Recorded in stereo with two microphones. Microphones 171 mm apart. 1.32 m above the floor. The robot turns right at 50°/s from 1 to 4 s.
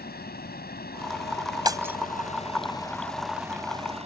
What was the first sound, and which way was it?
Running water, 70° left.